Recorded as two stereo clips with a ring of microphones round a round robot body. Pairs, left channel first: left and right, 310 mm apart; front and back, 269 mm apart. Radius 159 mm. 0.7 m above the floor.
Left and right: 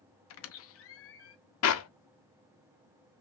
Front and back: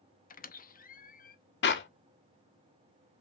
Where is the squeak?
55° left, 0.8 m.